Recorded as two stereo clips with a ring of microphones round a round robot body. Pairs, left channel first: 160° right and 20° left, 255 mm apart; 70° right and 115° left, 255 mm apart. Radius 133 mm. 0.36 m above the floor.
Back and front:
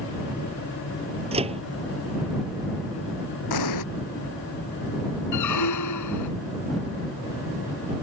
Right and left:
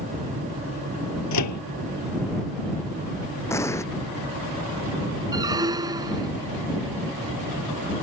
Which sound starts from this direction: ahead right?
A microwave, at 1.3 s.